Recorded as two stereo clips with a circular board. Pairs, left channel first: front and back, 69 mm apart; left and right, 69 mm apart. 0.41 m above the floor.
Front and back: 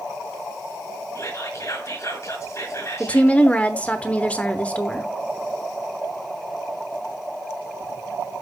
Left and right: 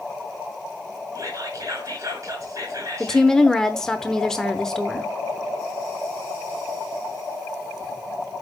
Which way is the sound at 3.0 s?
20° left.